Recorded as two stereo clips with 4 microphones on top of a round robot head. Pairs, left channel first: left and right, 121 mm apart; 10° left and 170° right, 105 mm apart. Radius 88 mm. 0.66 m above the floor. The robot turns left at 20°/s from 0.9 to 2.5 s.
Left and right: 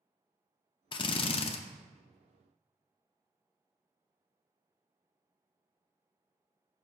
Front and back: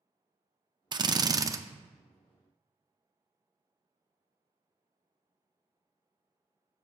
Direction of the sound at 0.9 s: 145° left.